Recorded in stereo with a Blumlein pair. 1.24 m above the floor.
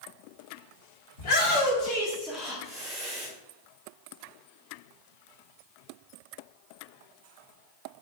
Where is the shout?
60° left, 0.9 m; by 3.3 s 30° right, 0.6 m.